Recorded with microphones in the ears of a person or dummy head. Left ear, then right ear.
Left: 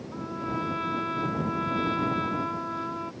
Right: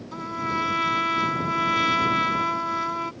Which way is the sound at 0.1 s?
75° right (ahead or behind).